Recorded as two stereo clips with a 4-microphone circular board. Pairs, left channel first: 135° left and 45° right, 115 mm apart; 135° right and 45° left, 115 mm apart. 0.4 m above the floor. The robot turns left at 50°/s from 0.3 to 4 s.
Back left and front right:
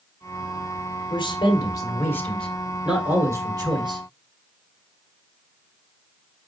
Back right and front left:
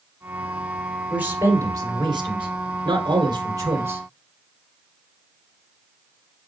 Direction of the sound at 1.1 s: 120° left.